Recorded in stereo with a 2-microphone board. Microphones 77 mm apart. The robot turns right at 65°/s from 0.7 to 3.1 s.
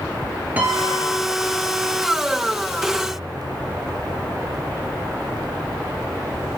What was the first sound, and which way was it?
A piano, 20° right.